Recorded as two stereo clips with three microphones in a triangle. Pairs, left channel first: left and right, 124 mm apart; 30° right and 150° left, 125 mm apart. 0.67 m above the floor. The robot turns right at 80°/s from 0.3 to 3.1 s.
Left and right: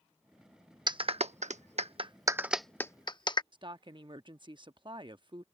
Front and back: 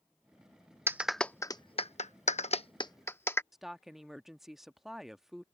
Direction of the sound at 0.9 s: 140° right.